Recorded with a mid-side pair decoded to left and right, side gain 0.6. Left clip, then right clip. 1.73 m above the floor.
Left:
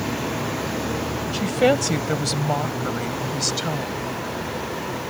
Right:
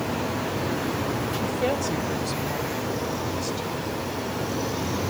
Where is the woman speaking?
45° left; by 4.0 s 60° left.